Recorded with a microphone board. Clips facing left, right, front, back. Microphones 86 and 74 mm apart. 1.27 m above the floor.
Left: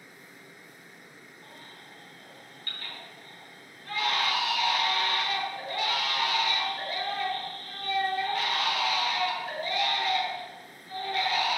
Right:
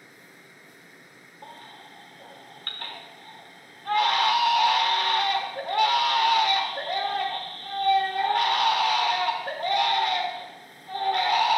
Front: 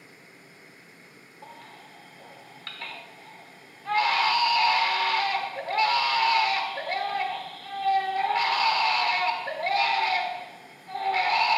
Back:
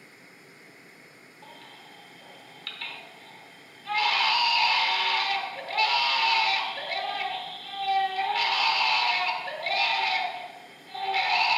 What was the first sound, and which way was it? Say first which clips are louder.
A baby crying: right 8 dB, front 3 dB; 60° right.